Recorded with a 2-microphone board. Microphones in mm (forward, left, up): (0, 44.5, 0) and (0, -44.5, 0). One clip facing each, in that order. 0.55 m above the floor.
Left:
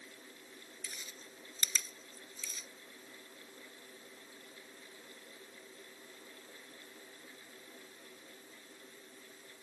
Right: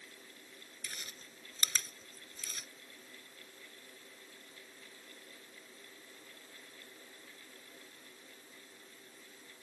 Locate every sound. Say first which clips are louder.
0.8 s chewing: right 3 dB; 70° right (ahead or behind)